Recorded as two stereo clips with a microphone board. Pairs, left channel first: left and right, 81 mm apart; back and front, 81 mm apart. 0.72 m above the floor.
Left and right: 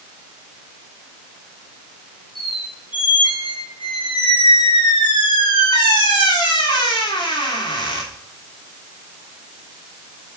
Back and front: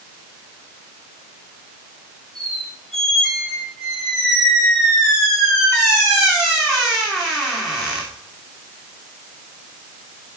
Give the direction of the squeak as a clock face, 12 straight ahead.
9 o'clock.